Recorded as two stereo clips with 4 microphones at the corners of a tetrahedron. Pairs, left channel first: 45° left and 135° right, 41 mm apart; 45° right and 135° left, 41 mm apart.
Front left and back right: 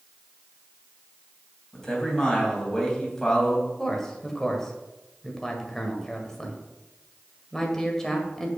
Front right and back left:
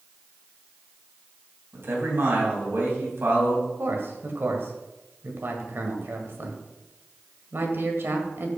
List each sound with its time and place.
1.7 s a man speaking: 120° left, 3 m
3.8 s a man speaking: 125° left, 1.7 m